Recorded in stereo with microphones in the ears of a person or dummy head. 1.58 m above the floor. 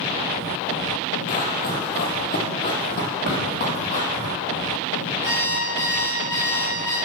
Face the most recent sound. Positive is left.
turn(degrees=15)  # may be behind; listen again after turning